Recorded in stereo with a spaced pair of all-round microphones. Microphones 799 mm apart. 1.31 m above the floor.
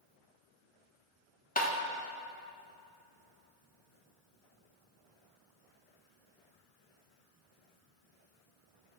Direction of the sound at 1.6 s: 10° left (ahead or behind).